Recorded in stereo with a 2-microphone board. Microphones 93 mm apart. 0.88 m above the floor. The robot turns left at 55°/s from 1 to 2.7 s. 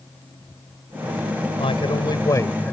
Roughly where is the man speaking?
Left.